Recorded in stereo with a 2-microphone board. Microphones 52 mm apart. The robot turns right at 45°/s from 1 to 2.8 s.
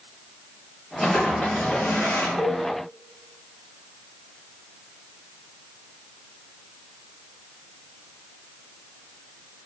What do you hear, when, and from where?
1.0 s a toilet flushing: 5° left, 1.6 m; by 2.3 s 65° left, 1.6 m
2.4 s a cowbell: 35° left (ahead or behind), 1.5 m; by 2.6 s 25° left (ahead or behind), 1.5 m